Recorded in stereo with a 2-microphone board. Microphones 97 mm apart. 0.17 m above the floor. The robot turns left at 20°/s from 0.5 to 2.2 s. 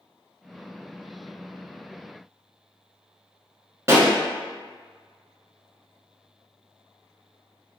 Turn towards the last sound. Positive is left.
turn(degrees=-35)  # may be behind; listen again after turning